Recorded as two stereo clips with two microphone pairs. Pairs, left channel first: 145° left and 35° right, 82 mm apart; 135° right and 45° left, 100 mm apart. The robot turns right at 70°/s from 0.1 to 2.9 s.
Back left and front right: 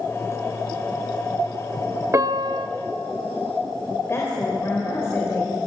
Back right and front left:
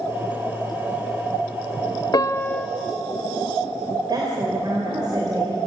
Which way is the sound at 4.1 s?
90° left.